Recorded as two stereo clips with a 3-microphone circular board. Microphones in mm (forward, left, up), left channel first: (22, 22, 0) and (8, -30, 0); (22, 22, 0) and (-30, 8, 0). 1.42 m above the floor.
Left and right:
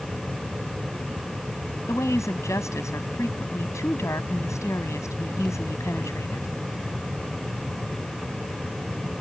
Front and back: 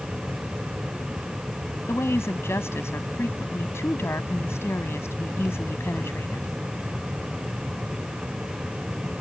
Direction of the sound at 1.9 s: 50° left.